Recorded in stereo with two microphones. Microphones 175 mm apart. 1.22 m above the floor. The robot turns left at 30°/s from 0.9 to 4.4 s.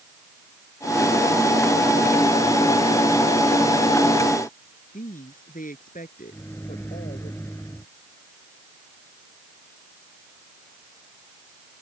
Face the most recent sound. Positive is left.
turn(degrees=15)  # may be behind; listen again after turning